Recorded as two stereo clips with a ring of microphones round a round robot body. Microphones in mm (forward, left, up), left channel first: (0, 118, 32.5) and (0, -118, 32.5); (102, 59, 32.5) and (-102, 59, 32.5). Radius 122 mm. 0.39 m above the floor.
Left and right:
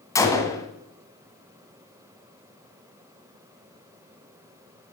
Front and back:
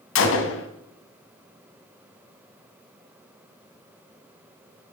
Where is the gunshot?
15° left, 2.0 m.